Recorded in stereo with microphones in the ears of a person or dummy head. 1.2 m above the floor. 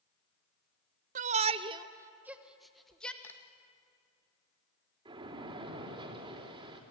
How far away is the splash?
About 3 m.